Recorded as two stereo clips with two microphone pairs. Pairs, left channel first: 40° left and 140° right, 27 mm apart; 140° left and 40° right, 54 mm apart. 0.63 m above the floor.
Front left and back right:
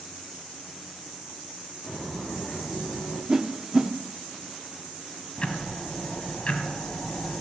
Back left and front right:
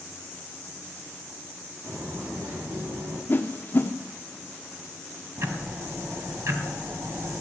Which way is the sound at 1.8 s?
35° right.